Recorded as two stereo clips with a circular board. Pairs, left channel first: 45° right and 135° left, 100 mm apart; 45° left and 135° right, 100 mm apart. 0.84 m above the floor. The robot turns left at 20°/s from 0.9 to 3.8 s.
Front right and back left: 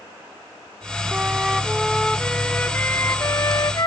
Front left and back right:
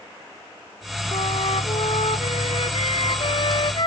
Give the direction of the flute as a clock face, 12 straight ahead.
10 o'clock.